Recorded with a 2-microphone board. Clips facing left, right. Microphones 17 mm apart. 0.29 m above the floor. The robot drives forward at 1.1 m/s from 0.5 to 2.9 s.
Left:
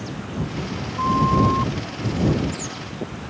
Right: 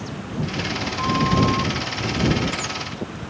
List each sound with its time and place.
1.0 s a flute: 20° left (ahead or behind); by 1.7 s 15° left (ahead or behind)